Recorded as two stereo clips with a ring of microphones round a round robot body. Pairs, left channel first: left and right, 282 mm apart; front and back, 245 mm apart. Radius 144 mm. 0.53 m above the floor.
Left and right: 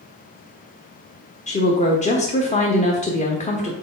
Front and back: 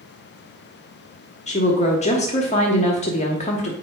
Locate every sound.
1.5 s a woman speaking: 40° left, 1.0 m